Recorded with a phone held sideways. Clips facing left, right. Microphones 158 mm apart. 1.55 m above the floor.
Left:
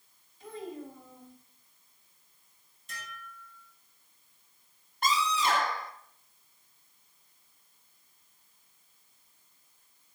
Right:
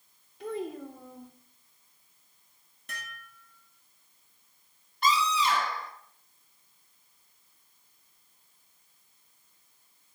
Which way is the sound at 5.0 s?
50° left (ahead or behind).